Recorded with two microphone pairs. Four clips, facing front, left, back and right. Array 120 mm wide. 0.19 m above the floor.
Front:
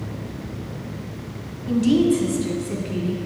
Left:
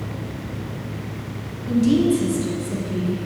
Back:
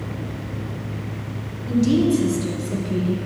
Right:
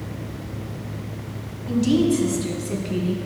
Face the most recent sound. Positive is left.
turn(degrees=-65)